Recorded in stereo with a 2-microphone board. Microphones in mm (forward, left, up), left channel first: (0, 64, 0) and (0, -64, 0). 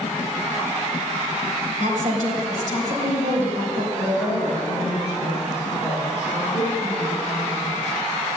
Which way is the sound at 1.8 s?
75° right (ahead or behind).